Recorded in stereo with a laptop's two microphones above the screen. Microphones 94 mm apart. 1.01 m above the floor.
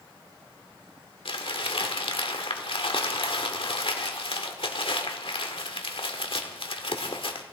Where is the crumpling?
70° left (ahead or behind), 1.4 m.